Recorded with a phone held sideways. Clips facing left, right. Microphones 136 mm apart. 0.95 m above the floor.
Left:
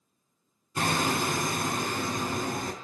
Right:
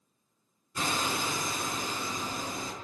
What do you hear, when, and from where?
0.8 s hammering: 65° left (ahead or behind), 3.5 m